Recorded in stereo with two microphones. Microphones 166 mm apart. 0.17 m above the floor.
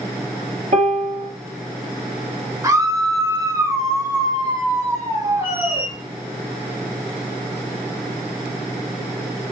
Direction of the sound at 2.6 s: 20° right (ahead or behind).